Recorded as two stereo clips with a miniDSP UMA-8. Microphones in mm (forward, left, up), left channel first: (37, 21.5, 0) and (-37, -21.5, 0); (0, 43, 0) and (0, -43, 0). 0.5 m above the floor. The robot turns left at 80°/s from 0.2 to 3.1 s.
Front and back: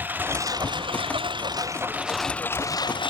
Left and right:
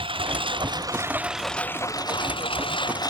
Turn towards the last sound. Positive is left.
turn(degrees=45)